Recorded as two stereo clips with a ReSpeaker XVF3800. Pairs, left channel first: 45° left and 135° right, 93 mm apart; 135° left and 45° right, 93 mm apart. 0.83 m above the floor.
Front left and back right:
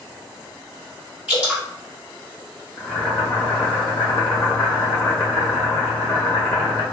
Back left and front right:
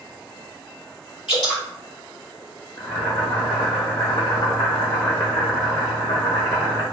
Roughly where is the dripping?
Behind left.